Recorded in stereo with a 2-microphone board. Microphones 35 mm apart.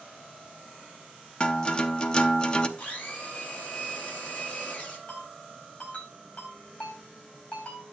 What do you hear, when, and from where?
1.4 s a guitar: 25° left (ahead or behind), 0.6 m
2.8 s a blender: 30° left (ahead or behind), 2.5 m
5.1 s a ringtone: 40° left (ahead or behind), 4.5 m